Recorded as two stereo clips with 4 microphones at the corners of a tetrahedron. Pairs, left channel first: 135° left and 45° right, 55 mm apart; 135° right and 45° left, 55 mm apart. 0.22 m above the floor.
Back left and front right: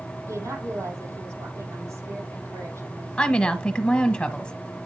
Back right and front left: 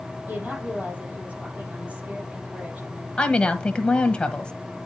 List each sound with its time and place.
0.3 s a woman speaking: 20° right, 6 m
3.2 s a woman speaking: straight behind, 1.2 m